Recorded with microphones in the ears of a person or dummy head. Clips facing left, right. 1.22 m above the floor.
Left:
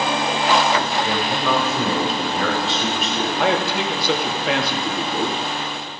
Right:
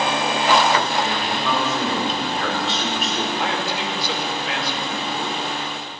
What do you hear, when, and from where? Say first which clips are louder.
1.0 s a man speaking: left 2 dB; 10° left (ahead or behind), 5 m; by 3.3 s 5° right (ahead or behind), 4.5 m
3.4 s a man speaking: left 5 dB; 50° left (ahead or behind), 2.5 m